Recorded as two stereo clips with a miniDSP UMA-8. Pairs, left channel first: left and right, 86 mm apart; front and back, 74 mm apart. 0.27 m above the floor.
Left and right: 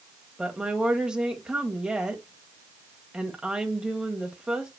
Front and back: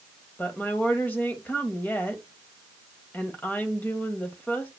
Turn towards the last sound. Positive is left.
turn(degrees=-25)